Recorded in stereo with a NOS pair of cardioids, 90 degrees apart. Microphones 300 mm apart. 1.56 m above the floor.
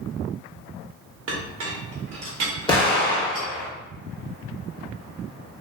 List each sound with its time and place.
1.3 s a clink: 55° right, 1.4 m
2.7 s an explosion: 15° left, 2.0 m